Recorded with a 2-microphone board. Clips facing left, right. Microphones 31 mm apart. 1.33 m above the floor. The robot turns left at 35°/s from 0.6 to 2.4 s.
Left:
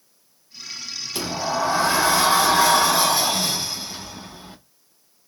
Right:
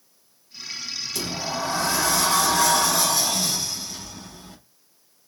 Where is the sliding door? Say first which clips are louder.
Left 6 dB; 105° left, 0.6 m; by 4.6 s 60° left, 0.6 m.